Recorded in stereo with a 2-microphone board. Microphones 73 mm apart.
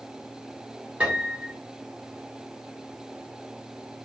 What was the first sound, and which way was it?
A piano, 15° right (ahead or behind).